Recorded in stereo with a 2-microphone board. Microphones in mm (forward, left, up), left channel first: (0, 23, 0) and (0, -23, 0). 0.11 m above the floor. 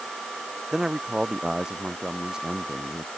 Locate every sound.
0.7 s a man speaking: 15° right (ahead or behind)